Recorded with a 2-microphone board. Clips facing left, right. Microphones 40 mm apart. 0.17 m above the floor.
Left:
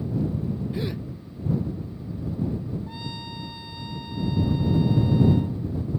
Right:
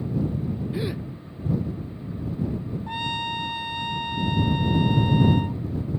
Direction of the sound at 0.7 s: 15° right (ahead or behind).